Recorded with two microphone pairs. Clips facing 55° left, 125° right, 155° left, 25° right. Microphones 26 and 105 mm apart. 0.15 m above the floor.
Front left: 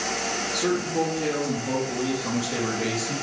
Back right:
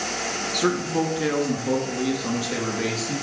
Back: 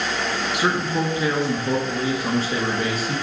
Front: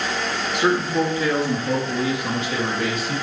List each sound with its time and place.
0.5 s a man speaking: 125° right, 1.8 m; by 3.1 s 155° right, 3 m